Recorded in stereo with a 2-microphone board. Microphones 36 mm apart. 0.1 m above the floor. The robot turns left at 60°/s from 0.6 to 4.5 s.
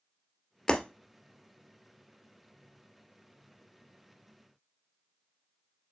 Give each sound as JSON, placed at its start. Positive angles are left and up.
{"t": 0.7, "sound": "breaking glass", "side_deg": 25, "distance_m": 1.4}